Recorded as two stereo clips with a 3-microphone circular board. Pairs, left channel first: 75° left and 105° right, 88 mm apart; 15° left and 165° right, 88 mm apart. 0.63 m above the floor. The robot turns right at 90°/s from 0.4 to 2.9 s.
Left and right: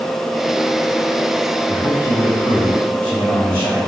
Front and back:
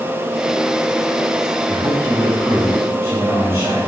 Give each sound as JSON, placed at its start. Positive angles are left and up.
{"t": 1.7, "sound": "a man speaking", "azimuth_deg": 30, "distance_m": 3.0}